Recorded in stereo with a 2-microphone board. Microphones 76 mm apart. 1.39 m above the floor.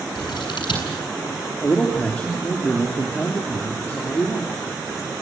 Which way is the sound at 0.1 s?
80° left.